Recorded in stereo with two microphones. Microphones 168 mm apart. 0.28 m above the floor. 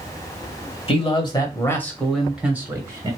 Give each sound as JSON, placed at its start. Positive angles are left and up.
{"t": 0.9, "sound": "a man speaking", "side_deg": 35, "distance_m": 1.0}